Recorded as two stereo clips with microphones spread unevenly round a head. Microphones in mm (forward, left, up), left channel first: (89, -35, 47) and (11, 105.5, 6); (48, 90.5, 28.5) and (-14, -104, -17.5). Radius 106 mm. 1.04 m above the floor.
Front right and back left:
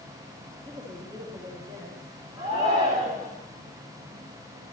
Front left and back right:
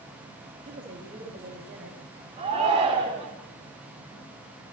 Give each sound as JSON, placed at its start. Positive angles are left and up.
{"t": 0.7, "sound": "a woman speaking", "azimuth_deg": -170, "distance_m": 7.0}
{"t": 2.4, "sound": "a shout", "azimuth_deg": -175, "distance_m": 3.0}